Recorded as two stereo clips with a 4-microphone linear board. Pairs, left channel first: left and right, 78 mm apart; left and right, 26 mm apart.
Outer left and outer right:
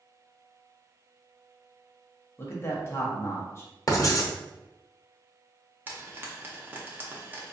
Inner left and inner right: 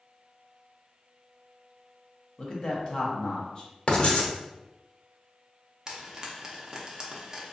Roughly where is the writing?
Left.